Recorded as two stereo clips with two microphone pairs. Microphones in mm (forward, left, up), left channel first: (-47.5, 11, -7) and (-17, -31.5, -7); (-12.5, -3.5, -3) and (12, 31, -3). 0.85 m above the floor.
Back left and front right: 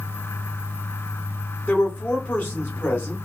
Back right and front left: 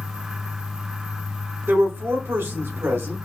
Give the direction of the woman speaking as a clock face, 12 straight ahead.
10 o'clock.